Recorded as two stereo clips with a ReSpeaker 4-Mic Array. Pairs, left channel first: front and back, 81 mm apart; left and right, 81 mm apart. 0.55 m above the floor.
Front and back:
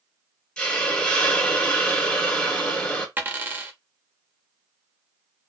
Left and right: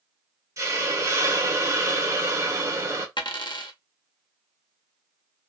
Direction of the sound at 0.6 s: 70° right.